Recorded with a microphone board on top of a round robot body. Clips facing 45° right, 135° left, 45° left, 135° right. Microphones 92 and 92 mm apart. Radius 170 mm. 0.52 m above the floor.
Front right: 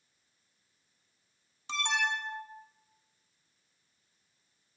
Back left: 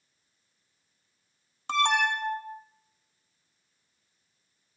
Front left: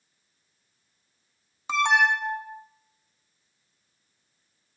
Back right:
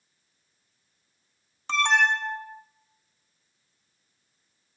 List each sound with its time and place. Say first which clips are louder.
1.7 s an alarm: back left 7 dB, front left 1 dB; 125° left, 0.7 m